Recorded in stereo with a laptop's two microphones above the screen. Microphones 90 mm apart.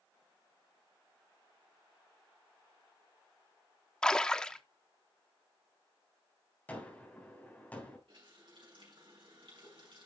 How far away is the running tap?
About 5.5 m.